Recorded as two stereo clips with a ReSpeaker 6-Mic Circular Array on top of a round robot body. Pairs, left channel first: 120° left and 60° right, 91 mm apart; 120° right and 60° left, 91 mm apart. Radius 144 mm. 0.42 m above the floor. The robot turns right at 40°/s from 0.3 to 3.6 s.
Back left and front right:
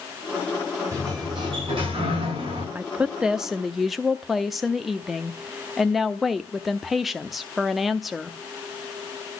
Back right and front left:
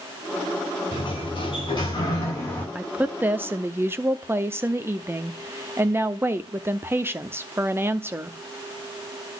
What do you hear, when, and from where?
0.9 s a sliding door: 120° right, 7 m; by 2.6 s 50° right, 7 m
2.8 s a woman speaking: 5° right, 0.8 m; by 8.4 s 30° left, 0.8 m